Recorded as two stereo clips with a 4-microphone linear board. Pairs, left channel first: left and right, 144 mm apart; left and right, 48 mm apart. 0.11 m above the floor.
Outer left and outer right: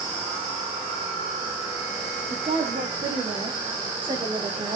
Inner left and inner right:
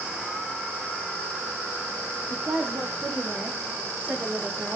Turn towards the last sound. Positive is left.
turn(degrees=-35)  # may be behind; listen again after turning